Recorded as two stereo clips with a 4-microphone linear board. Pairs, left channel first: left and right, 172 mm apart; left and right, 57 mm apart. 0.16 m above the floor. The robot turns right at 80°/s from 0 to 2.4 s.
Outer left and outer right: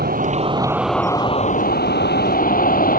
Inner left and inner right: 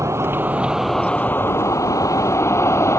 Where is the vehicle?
70° right; by 3.0 s 120° left.